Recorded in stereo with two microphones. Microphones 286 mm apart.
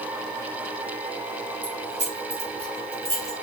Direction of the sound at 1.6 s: 25° right (ahead or behind).